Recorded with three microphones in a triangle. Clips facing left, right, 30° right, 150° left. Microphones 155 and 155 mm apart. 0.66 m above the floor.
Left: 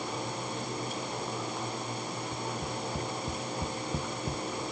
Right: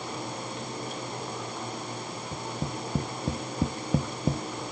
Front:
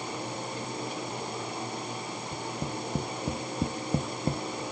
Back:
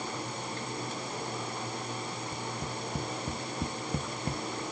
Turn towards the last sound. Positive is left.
turn(degrees=-90)